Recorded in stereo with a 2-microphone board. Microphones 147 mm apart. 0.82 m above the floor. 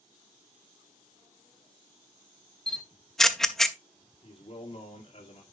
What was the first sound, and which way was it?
A camera shutter, 5° left (ahead or behind).